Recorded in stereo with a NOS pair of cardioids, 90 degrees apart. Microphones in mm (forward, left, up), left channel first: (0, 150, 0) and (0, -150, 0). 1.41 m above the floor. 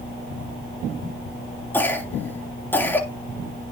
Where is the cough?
5° left, 3.5 m.